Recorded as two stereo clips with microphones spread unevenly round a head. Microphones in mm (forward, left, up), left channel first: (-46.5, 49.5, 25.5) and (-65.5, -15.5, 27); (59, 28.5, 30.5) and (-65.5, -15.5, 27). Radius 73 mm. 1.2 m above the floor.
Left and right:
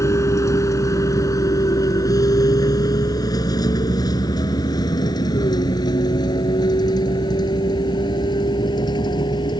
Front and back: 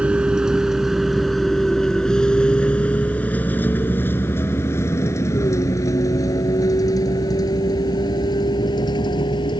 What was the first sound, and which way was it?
A vehicle, 115° left.